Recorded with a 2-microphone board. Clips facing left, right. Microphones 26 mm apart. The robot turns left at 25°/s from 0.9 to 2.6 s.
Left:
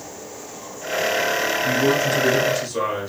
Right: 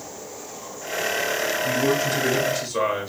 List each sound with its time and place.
1.6 s a man speaking: 15° left (ahead or behind), 1.2 m; by 3.1 s centre (ahead or behind), 1.2 m